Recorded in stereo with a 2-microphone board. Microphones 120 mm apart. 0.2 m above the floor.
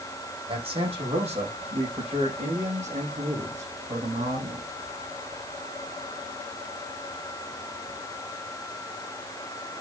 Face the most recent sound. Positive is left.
turn(degrees=-85)